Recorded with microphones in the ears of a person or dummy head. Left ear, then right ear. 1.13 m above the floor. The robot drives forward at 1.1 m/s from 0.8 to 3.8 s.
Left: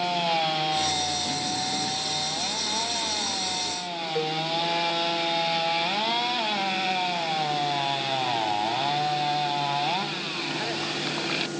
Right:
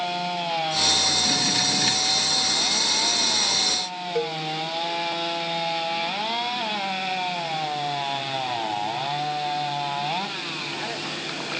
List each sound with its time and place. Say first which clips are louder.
4.2 s a cowbell: right 1 dB; 70° right (ahead or behind)